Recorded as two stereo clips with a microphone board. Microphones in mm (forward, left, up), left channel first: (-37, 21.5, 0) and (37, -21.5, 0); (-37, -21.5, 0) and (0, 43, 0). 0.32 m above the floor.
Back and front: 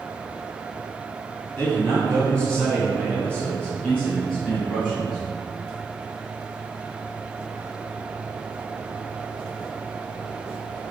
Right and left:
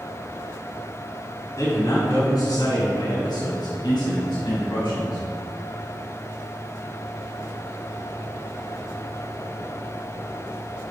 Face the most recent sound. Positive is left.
turn(degrees=-125)